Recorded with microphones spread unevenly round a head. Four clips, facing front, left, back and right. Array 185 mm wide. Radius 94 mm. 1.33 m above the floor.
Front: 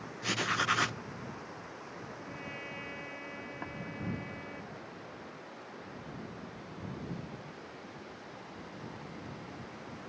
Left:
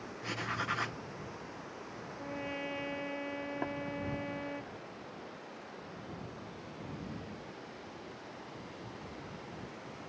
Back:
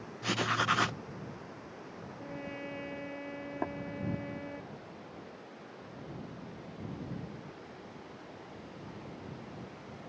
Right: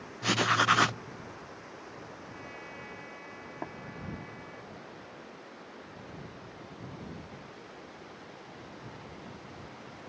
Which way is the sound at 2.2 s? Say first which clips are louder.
Left 6 dB, back 2 dB; 120° left.